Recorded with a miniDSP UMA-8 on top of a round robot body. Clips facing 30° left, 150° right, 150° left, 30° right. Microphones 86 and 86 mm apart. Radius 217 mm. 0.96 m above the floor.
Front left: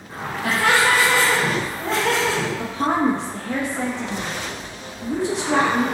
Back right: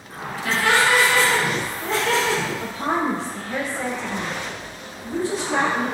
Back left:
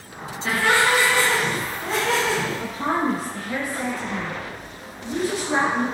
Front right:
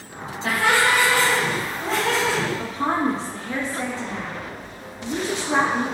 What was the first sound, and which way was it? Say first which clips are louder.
Laughter: front left 1 dB, even; 10° left.